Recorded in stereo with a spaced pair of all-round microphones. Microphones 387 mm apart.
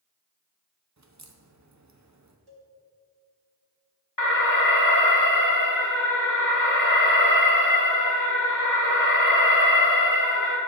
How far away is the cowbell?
About 1.6 m.